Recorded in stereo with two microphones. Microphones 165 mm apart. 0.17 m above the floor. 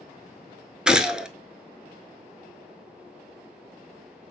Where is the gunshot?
5° right (ahead or behind), 0.5 m.